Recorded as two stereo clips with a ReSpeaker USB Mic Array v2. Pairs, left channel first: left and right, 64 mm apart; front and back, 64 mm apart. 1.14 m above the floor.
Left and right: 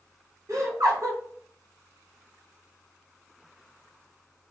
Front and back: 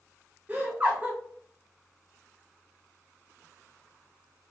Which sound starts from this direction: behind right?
Laughter, at 0.5 s.